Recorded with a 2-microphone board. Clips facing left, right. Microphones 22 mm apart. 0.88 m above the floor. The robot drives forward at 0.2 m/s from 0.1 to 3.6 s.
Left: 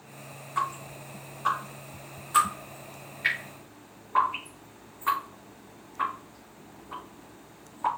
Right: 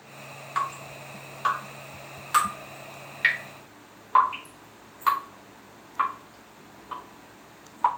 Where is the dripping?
85° right, 3.5 m; by 7.9 s 75° right (ahead or behind), 3.5 m.